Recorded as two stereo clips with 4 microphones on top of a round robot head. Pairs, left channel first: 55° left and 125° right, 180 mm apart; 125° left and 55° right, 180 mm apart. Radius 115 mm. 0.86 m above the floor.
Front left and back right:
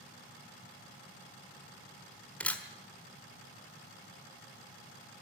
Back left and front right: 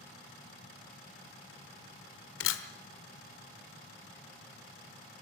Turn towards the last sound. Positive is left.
turn(degrees=135)